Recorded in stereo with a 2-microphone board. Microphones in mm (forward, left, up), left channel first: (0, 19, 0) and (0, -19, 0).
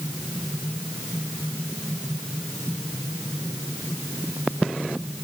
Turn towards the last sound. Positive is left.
No sound to turn to.